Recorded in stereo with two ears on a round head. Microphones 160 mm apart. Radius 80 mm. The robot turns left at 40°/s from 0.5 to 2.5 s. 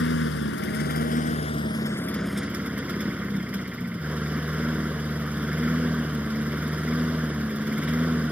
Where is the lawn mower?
75° left; by 8.3 s 5° right.